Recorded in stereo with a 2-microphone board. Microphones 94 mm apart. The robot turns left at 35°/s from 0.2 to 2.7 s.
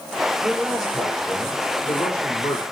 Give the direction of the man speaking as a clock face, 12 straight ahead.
5 o'clock.